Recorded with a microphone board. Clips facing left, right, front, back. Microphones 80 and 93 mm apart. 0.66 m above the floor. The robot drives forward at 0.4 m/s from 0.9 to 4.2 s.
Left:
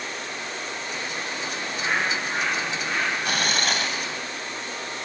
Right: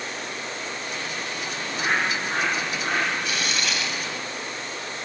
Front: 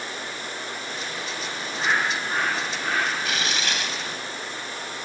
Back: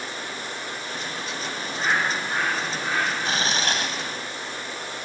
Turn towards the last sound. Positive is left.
turn(degrees=135)